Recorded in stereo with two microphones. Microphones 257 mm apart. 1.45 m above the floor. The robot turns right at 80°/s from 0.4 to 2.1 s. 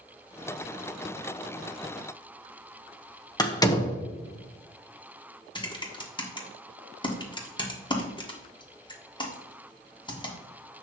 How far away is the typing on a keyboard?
About 1.4 m.